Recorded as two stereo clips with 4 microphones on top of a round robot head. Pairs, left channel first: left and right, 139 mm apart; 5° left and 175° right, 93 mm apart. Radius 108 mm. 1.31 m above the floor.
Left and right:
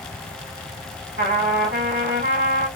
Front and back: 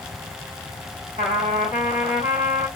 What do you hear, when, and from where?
1.2 s a trumpet: 130° right, 1.3 m